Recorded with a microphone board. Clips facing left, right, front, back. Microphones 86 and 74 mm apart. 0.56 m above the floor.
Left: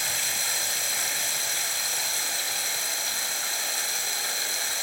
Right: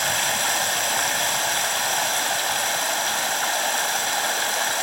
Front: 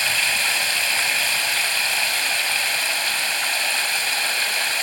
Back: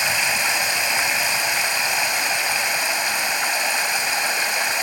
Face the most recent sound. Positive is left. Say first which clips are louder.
# right 10 dB, back 2 dB
turn(degrees=-110)